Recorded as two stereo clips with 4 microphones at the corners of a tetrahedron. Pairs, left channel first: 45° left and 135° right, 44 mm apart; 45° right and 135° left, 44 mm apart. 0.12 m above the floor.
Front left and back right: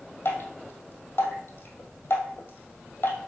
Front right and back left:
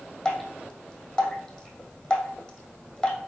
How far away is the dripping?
About 2 m.